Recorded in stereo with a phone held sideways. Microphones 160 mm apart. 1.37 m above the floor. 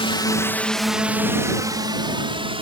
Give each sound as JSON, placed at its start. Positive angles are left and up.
{"t": 0.0, "sound": "a drone", "side_deg": 35}